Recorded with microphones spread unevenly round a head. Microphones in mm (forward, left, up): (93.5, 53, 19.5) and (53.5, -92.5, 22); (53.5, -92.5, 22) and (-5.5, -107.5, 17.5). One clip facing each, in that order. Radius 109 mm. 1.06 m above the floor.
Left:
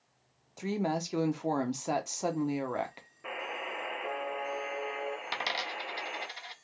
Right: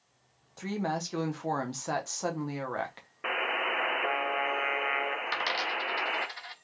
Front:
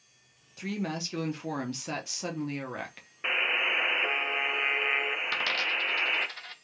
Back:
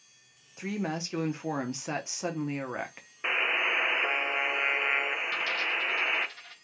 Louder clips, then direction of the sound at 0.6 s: Left 1 dB, back 1 dB; 140° left.